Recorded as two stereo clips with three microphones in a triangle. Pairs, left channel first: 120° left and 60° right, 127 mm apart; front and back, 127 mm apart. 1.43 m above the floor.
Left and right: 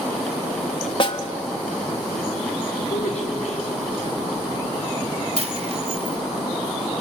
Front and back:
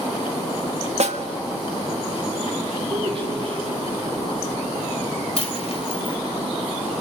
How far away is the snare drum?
About 1.4 m.